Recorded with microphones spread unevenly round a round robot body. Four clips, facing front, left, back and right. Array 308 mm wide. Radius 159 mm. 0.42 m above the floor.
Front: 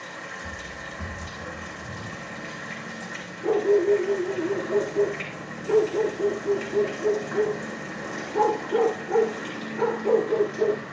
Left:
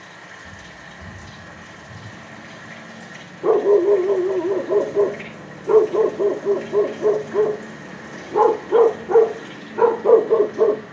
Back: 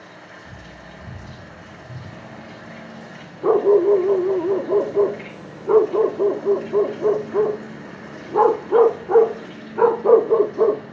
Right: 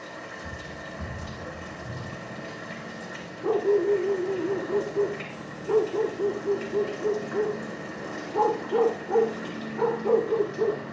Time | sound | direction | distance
0.0 | running water | 55° right | 9 m
3.4 | a dog barking | 125° left | 0.7 m